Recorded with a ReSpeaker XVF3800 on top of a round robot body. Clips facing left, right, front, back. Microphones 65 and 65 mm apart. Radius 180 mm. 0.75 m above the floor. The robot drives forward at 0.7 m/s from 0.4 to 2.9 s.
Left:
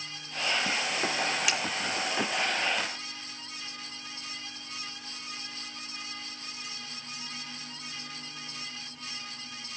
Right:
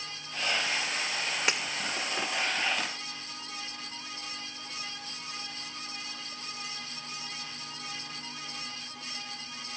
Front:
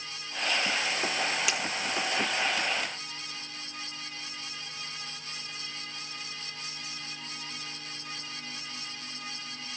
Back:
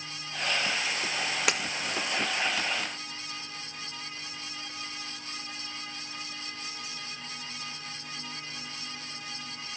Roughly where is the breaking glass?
Behind right.